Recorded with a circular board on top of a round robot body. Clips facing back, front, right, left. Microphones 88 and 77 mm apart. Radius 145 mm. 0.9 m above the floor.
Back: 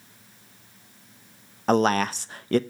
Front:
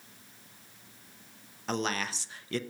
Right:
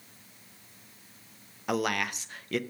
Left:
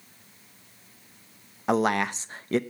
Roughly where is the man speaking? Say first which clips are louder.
Back 12 dB, left 6 dB; behind left.